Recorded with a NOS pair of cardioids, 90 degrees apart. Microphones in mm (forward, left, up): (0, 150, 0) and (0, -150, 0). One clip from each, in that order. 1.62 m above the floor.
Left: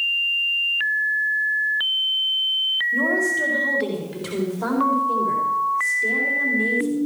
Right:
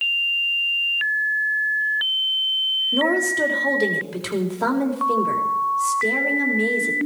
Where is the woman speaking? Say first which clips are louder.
Right 1 dB; 55° right, 4 m.